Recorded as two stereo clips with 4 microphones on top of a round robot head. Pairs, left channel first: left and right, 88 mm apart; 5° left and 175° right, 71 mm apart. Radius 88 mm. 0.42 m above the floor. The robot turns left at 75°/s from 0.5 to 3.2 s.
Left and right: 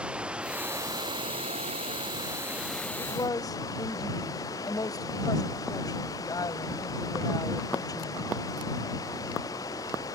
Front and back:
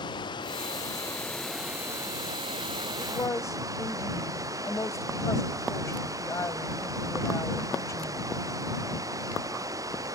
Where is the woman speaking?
60° left; by 8.2 s 45° left.